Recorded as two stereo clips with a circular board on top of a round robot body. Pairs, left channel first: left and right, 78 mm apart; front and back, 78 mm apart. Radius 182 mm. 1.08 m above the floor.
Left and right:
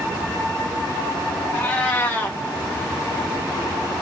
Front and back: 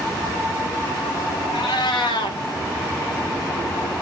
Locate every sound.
1.5 s a cat meowing: 20° left, 0.5 m